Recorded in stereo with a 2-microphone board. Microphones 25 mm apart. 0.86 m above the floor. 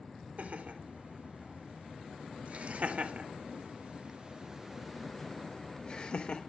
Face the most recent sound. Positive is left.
turn(degrees=55)  # may be behind; listen again after turning